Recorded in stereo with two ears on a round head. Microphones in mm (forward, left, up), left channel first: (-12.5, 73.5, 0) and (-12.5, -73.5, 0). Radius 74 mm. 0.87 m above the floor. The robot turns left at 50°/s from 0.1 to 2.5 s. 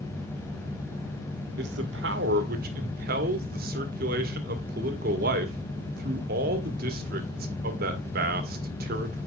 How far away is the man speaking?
About 1.6 m.